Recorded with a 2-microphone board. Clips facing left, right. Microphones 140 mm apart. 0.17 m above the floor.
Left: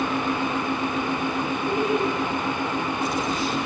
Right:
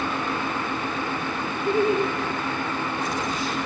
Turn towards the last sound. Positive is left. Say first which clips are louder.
# right 3 dB
turn(degrees=-35)  # may be behind; listen again after turning